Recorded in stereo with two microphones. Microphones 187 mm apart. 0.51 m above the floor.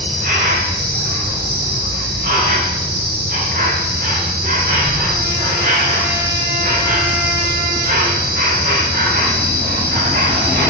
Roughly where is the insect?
Right.